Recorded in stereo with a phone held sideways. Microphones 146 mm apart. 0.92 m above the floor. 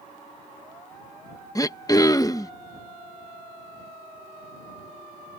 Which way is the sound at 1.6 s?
25° left (ahead or behind).